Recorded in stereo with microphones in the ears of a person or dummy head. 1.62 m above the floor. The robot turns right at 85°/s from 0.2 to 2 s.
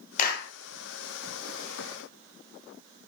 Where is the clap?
50° left (ahead or behind), 1.0 m; by 0.5 s 75° left (ahead or behind), 1.0 m.